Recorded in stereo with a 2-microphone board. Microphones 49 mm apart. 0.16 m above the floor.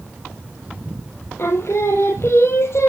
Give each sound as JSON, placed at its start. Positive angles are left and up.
{"t": 1.4, "sound": "singing", "side_deg": 70, "distance_m": 1.3}